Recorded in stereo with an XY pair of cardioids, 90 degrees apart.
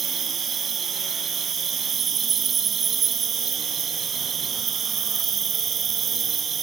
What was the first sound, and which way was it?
An insect, 60° right.